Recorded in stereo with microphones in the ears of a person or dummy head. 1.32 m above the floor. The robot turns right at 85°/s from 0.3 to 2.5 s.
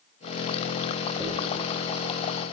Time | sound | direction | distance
1.2 | a dropped coin | centre (ahead or behind) | 1.0 m